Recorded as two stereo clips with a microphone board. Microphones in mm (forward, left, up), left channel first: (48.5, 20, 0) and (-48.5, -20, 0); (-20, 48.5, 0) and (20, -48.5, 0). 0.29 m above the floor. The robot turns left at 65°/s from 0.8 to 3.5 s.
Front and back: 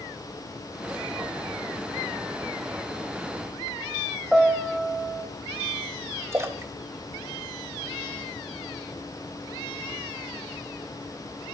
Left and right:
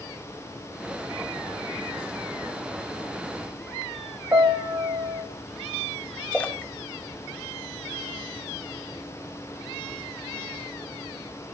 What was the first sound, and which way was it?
A piano, 70° right.